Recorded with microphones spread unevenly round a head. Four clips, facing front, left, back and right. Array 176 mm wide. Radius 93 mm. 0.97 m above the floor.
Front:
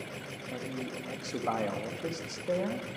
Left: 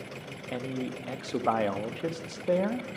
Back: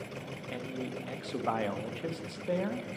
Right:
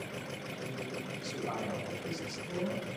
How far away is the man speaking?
About 1.0 m.